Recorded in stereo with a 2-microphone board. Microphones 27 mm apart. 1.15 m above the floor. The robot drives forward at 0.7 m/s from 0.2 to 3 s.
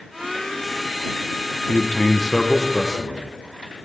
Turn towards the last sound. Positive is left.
turn(degrees=20)  # may be behind; listen again after turning